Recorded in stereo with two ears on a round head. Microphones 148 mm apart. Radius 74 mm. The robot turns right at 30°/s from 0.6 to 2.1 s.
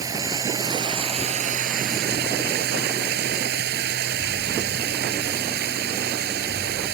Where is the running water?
160° right; by 7.0 s 115° right.